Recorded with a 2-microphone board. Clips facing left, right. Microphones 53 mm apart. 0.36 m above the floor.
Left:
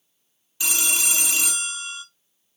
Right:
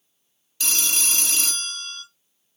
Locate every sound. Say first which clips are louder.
0.6 s a phone ringing: left 2 dB; 15° left (ahead or behind), 0.5 m